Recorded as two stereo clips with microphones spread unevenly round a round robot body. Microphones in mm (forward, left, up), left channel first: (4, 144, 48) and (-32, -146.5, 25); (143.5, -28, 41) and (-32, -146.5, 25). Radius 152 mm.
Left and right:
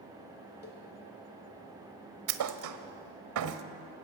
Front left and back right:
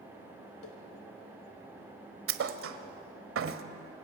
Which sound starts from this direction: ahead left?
A cowbell, at 0.6 s.